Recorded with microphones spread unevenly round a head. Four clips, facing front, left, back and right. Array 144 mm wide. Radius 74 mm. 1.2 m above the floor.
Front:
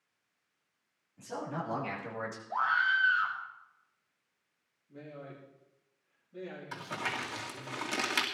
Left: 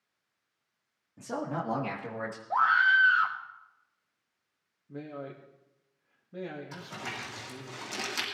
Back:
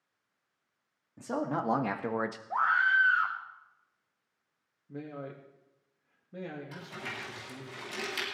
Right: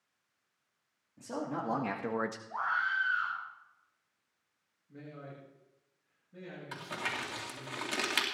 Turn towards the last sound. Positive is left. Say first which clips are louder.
# right 1 dB, front 4 dB
turn(degrees=-25)